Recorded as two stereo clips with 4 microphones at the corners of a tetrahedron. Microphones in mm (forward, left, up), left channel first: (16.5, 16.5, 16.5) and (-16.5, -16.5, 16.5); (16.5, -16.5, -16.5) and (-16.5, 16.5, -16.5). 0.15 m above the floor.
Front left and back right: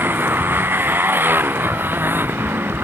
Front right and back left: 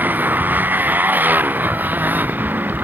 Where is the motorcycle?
Straight behind.